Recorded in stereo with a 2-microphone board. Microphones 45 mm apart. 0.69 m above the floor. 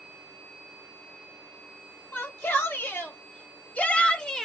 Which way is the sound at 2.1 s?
55° left (ahead or behind).